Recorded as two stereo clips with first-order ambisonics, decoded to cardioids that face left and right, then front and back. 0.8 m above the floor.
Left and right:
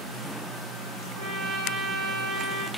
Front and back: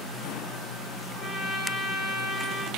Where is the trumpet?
65° right, 1.5 m.